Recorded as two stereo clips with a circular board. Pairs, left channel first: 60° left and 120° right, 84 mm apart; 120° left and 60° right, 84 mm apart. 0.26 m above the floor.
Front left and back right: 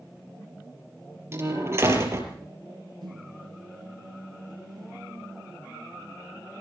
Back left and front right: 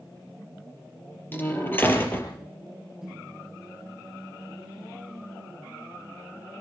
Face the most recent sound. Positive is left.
turn(degrees=-145)